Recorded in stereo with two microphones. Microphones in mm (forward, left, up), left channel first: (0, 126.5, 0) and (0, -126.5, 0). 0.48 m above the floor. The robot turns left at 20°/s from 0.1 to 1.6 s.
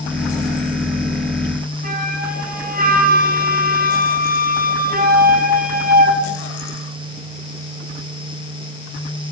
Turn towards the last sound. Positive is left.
turn(degrees=-35)  # may be behind; listen again after turning